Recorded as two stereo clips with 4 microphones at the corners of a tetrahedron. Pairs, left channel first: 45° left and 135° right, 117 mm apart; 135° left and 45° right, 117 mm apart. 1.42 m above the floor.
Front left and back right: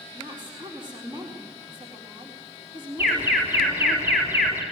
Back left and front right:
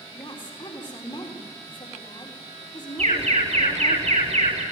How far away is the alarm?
About 5 m.